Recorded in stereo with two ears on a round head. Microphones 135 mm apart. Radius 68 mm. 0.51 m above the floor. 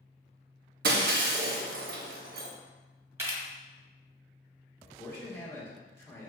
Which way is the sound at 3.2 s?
20° right (ahead or behind).